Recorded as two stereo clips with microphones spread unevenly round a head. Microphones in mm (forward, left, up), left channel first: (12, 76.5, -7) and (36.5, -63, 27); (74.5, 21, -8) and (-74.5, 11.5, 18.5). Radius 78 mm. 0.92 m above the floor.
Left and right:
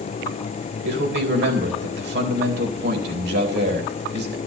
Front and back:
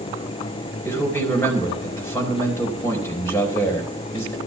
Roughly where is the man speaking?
Right.